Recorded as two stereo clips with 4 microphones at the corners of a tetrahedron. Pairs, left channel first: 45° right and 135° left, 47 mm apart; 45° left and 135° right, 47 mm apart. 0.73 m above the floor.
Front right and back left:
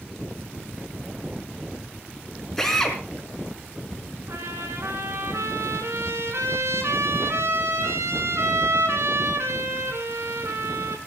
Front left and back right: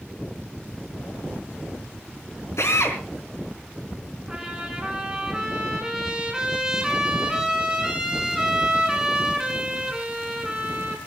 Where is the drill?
35° left, 4.5 m.